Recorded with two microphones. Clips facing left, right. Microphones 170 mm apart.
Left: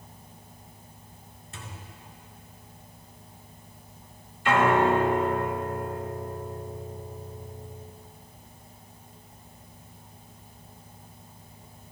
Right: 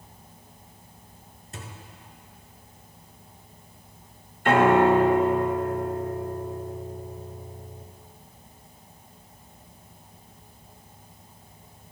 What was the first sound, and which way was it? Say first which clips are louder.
A thud: right 2 dB; 40° right (ahead or behind).